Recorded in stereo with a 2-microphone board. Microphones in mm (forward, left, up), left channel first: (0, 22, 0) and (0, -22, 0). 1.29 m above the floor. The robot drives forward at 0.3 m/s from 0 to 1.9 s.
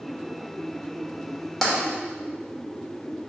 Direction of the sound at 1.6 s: 5° left (ahead or behind).